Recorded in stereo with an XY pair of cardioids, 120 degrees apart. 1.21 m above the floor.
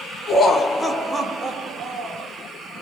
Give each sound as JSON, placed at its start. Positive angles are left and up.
{"t": 0.3, "sound": "laughter", "azimuth_deg": 35, "distance_m": 0.6}